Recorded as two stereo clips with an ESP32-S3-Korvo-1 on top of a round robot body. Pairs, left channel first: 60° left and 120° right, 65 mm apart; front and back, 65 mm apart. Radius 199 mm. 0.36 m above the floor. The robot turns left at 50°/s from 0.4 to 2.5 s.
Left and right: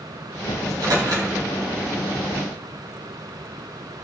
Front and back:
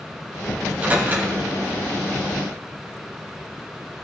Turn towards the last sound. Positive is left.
turn(degrees=170)